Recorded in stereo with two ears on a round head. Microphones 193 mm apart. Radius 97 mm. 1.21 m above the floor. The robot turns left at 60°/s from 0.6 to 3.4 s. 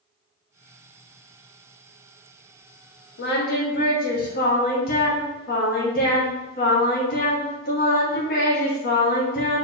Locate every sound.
3.2 s singing: 55° left (ahead or behind), 1.7 m; by 9.7 s 45° left (ahead or behind), 1.7 m